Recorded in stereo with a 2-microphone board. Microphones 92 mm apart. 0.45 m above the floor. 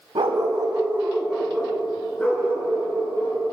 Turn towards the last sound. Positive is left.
turn(degrees=25)  # may be behind; listen again after turning